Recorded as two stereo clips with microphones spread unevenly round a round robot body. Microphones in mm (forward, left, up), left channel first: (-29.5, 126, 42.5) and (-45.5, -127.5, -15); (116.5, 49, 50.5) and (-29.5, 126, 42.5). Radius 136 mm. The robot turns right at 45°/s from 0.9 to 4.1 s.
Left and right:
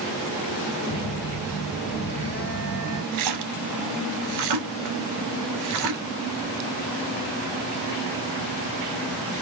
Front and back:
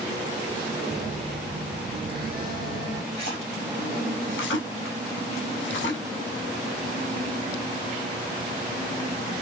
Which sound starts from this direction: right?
A splash, at 3.1 s.